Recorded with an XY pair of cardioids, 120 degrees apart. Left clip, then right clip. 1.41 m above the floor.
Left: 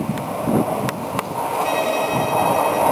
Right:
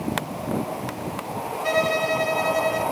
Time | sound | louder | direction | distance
1.6 | a violin | right 2 dB | 50° right | 3 m